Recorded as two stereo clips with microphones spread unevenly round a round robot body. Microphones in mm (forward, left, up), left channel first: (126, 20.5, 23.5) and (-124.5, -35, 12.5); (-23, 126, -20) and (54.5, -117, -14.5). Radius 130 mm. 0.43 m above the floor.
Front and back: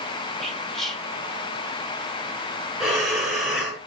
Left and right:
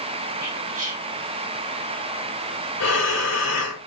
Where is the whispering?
80° right, 0.8 m.